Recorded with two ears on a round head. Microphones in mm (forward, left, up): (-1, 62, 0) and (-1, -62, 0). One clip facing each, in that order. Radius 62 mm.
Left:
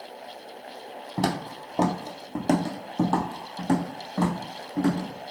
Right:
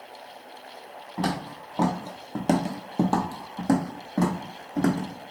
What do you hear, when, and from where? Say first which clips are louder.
1.2 s footsteps: left 1 dB; 45° left (ahead or behind), 0.9 m; by 5.1 s 55° right (ahead or behind), 1.6 m